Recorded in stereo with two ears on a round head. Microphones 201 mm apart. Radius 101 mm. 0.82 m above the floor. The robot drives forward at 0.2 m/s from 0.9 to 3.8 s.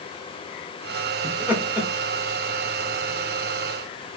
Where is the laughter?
5° right (ahead or behind), 0.9 m.